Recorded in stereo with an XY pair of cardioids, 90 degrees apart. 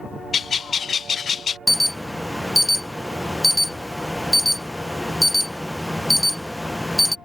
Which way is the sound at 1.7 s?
5° left.